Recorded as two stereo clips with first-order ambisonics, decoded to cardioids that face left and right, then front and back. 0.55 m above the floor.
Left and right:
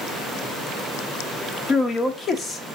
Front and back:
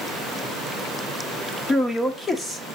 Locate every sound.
1.7 s a man speaking: 60° left, 0.7 m